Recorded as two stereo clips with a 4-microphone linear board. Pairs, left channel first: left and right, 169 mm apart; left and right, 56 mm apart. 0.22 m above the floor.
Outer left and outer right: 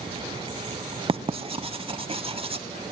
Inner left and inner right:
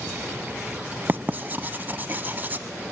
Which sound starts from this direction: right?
Writing, at 1.1 s.